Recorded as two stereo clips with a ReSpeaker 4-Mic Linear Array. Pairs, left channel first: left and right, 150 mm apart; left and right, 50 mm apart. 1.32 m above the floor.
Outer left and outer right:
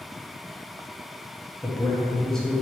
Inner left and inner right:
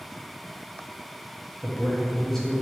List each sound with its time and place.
1.6 s a man speaking: 5° left (ahead or behind), 0.9 m